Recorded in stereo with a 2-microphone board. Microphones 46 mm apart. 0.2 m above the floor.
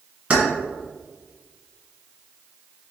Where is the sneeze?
I don't hear a sneeze.